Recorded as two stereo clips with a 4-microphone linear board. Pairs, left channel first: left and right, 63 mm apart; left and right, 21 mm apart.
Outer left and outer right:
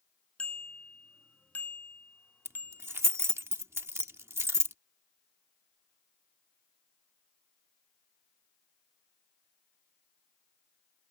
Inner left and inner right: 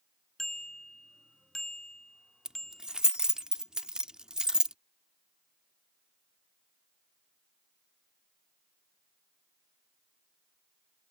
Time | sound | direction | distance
0.4 | a bicycle bell | 15° left (ahead or behind) | ?
2.5 | keys jangling | 45° right (ahead or behind) | ?